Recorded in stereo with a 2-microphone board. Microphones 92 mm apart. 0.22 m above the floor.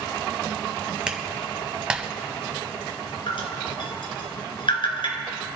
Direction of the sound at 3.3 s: 65° left (ahead or behind).